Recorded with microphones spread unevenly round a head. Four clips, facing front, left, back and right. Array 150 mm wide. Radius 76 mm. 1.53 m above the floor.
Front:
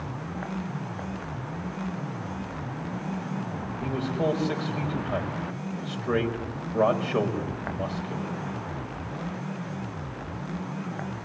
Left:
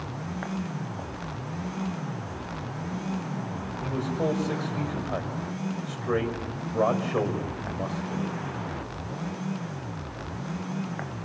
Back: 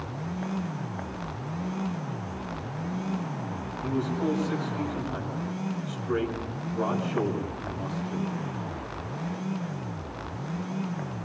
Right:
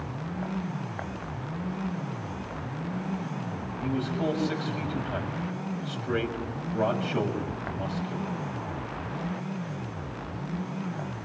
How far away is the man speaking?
About 6.5 m.